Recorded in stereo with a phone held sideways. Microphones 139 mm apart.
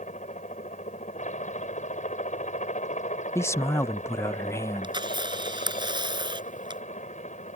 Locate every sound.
0.0 s a helicopter: 70° left (ahead or behind)
3.4 s a man speaking: 20° left (ahead or behind)
4.8 s a camera shutter: 35° right (ahead or behind)